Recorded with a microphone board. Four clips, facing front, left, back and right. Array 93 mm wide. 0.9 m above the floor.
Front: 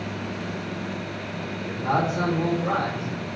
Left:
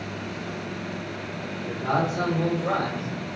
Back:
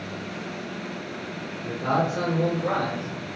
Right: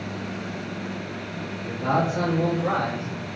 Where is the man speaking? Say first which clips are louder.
Right 2 dB, even; 125° right, 1.7 m; by 3.1 s 80° right, 1.7 m.